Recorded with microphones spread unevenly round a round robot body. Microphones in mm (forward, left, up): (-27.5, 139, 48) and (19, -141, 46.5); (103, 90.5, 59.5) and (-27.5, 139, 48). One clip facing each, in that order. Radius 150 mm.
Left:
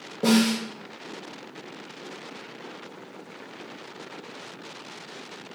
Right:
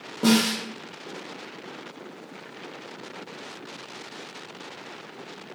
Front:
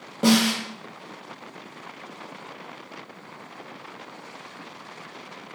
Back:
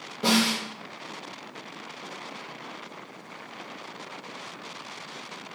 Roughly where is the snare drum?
Ahead.